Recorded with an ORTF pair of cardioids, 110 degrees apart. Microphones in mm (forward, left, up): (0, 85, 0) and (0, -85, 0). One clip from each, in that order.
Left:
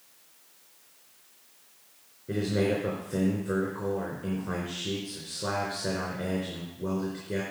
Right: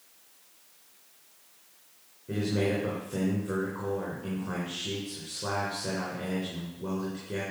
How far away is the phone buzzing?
I don't hear a phone buzzing.